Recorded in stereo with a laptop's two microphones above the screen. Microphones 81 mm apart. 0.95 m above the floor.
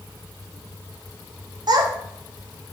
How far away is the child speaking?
About 0.7 m.